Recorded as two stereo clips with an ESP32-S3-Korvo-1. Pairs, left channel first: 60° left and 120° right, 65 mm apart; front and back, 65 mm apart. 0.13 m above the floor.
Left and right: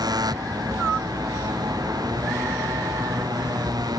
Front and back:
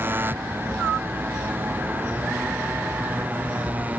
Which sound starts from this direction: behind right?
A motorcycle, at 0.0 s.